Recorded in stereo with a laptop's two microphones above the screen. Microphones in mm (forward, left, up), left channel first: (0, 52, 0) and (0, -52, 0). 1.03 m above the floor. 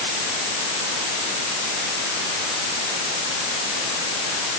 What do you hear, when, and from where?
Only background noise.